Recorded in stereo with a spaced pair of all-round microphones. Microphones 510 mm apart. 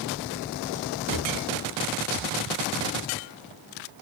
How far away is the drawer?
About 1.4 m.